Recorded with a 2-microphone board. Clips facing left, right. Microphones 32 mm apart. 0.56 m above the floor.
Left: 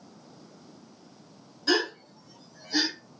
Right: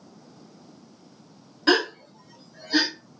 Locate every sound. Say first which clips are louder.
1.7 s a gasp: right 5 dB; 60° right (ahead or behind), 0.7 m